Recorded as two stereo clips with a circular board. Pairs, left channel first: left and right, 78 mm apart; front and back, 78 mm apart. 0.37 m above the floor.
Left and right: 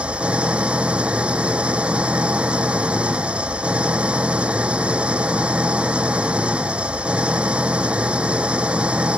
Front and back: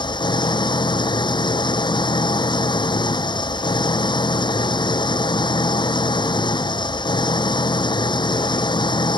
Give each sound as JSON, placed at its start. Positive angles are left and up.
{"t": 0.0, "sound": "an engine running", "azimuth_deg": -15}